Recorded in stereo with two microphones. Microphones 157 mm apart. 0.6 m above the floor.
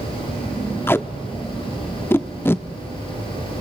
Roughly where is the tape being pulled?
Centre.